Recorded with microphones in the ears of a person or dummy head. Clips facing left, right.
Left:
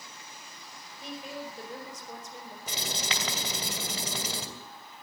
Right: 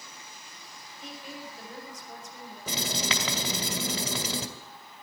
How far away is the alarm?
I don't hear an alarm.